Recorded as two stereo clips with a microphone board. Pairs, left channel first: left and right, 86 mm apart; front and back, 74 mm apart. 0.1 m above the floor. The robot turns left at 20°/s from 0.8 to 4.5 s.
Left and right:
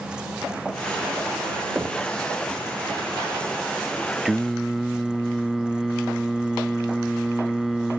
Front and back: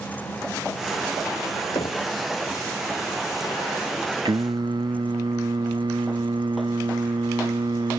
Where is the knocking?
15° right; by 2.1 s 20° right.